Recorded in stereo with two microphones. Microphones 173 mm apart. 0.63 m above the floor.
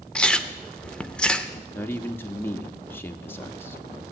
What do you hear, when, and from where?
0.1 s chewing: 5° left (ahead or behind), 0.7 m
1.7 s a man speaking: 10° left (ahead or behind), 1.0 m